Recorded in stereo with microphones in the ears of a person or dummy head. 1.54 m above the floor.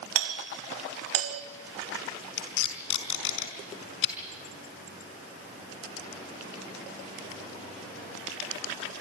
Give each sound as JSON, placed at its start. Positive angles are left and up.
{"t": 0.1, "sound": "a doorbell", "side_deg": -70, "distance_m": 2.0}
{"t": 2.4, "sound": "tape being pulled", "side_deg": 75, "distance_m": 4.5}